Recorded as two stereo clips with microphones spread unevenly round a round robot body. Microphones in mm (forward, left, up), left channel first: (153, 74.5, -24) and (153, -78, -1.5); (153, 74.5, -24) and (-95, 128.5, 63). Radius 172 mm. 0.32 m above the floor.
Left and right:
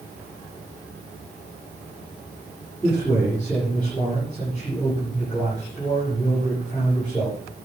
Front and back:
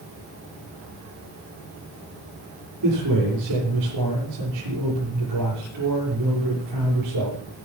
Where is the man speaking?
175° left, 8 m.